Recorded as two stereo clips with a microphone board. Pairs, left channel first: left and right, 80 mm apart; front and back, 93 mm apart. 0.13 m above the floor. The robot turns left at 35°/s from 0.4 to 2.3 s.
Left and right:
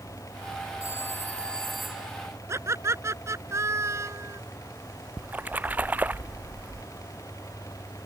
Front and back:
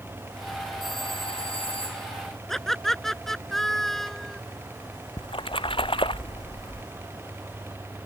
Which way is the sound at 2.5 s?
85° right.